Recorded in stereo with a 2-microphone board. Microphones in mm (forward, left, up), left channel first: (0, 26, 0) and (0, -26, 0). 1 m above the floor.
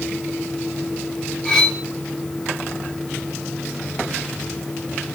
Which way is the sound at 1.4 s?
10° left (ahead or behind).